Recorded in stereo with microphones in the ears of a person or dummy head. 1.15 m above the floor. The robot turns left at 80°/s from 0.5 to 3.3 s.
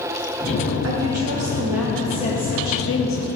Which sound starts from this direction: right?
A woman speaking, at 0.8 s.